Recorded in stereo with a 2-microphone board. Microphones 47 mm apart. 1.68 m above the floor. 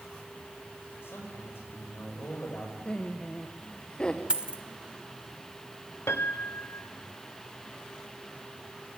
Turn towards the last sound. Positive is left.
turn(degrees=60)  # may be behind; listen again after turning